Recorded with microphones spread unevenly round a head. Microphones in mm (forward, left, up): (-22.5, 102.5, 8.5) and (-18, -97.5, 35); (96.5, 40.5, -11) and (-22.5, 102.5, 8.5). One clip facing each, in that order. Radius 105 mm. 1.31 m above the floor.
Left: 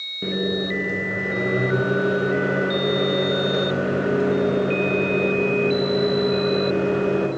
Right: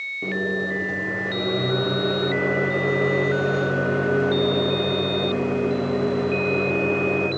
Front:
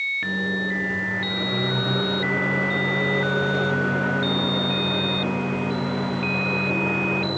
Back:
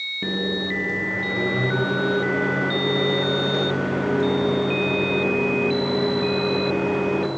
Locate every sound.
0.2 s a microwave: 170° left, 0.6 m